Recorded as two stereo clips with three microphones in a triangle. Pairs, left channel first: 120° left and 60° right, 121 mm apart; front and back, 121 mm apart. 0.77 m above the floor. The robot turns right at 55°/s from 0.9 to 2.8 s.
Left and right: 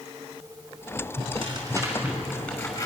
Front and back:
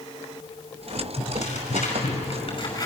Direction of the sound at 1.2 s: 35° right.